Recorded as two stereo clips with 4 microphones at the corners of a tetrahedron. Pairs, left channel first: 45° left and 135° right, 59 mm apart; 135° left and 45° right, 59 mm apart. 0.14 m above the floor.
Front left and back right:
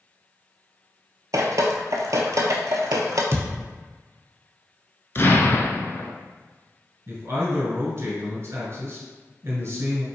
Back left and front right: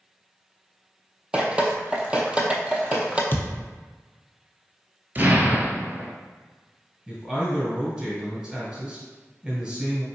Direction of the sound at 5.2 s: 5° left.